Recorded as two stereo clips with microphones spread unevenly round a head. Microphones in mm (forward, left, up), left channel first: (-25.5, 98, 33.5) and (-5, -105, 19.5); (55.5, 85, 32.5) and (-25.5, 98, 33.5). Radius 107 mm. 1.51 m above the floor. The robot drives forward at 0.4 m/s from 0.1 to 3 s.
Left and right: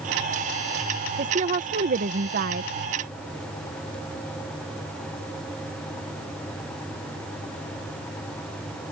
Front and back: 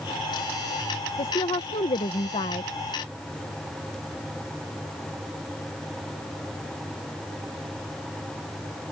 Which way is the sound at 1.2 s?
30° right.